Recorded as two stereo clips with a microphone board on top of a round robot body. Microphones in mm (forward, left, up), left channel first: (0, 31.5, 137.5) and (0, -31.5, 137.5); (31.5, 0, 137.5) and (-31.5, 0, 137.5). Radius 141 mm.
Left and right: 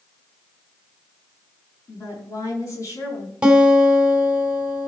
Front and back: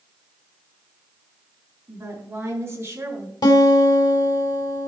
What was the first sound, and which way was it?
A woman speaking, 130° left.